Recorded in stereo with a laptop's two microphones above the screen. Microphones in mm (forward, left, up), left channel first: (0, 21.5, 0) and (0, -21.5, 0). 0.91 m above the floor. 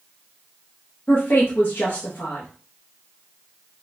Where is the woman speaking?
55° left (ahead or behind), 0.8 m.